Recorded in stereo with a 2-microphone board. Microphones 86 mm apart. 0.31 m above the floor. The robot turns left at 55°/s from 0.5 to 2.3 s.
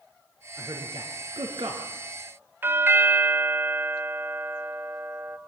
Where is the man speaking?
40° right (ahead or behind), 4.5 m; by 1.9 s 60° right (ahead or behind), 4.5 m.